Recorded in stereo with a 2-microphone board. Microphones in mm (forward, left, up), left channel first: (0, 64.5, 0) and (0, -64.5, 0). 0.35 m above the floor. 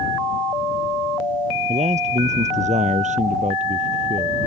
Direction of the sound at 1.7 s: 65° right (ahead or behind).